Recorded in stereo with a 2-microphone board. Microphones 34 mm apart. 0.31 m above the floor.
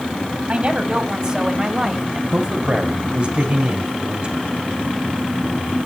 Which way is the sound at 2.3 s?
30° right (ahead or behind).